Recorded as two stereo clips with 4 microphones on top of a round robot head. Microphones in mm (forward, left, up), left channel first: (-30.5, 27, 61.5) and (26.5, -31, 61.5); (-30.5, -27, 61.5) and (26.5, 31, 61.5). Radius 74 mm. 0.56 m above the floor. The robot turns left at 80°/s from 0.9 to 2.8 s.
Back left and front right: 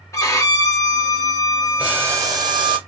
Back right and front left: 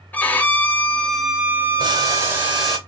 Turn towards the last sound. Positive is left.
turn(degrees=-50)